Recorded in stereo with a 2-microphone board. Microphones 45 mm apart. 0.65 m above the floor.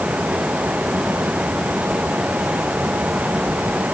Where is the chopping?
I don't hear chopping.